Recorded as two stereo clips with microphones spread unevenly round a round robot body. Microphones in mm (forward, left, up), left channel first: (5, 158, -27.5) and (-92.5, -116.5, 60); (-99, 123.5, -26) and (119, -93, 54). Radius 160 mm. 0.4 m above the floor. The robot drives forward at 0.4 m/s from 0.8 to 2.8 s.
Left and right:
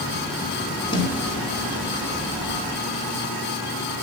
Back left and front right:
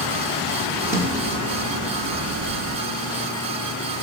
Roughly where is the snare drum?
Ahead left.